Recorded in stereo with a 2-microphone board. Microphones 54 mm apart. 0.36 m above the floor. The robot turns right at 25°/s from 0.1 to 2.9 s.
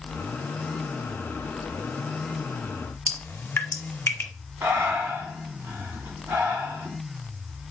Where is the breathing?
60° right (ahead or behind), 1.0 m.